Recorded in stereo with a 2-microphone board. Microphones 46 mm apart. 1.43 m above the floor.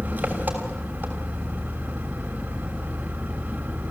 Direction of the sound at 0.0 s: 40° right (ahead or behind).